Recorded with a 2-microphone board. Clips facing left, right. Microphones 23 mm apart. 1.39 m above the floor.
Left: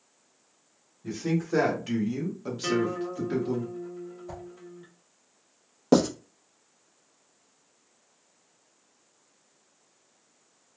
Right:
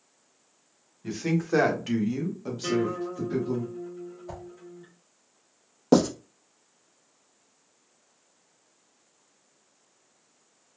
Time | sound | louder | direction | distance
1.0 | a woman speaking | right 1 dB | 45° right (ahead or behind) | 1.2 m
2.6 | a guitar | even | 25° left (ahead or behind) | 1.0 m
4.3 | a whoosh | right 2 dB | 20° right (ahead or behind) | 1.0 m
5.9 | writing | right 1 dB | centre (ahead or behind) | 0.7 m